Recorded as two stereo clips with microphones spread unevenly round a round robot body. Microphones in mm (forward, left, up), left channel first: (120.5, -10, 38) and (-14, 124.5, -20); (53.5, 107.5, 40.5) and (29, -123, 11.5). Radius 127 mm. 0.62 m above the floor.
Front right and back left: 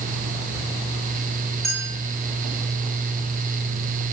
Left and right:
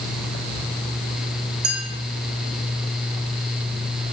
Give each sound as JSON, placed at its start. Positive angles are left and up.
{"t": 1.6, "sound": "a clink", "azimuth_deg": -135, "distance_m": 6.5}